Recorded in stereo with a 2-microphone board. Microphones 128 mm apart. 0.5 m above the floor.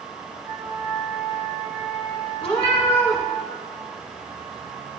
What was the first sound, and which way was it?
A flute, 5° right (ahead or behind).